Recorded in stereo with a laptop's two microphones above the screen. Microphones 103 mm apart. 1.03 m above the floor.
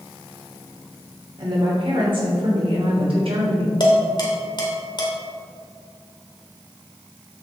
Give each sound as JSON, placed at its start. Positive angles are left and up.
{"t": 1.4, "sound": "a woman speaking", "side_deg": -50, "distance_m": 3.0}
{"t": 3.8, "sound": "dishes clattering", "side_deg": 45, "distance_m": 2.5}